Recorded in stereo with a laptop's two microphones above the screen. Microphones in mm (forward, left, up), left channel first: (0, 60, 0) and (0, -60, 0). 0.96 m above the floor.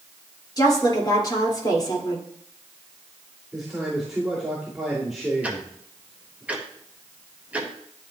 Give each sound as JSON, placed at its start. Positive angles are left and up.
{"t": 0.6, "sound": "a woman speaking", "side_deg": 35, "distance_m": 2.5}
{"t": 3.5, "sound": "a man speaking", "side_deg": 0, "distance_m": 3.0}
{"t": 5.4, "sound": "ticking", "side_deg": -10, "distance_m": 0.9}